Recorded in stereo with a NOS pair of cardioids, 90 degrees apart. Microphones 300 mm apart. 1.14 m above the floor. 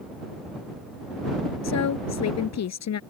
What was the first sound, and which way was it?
A woman speaking, 60° left.